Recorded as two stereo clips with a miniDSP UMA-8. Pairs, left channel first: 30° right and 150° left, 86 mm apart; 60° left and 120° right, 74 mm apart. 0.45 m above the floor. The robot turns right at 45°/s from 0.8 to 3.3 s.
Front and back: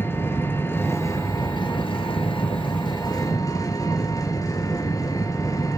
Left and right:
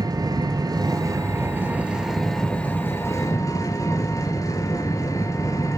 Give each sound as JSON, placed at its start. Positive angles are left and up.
{"t": 0.0, "sound": "an engine running", "azimuth_deg": -95, "distance_m": 2.5}